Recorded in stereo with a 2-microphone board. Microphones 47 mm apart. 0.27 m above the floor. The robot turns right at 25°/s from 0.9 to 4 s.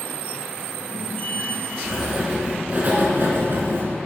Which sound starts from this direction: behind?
Writing, at 1.8 s.